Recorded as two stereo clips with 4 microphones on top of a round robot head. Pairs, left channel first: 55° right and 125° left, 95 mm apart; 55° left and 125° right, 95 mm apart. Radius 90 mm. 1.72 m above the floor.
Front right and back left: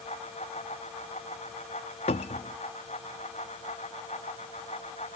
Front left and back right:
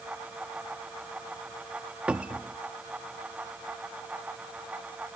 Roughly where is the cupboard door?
Ahead right.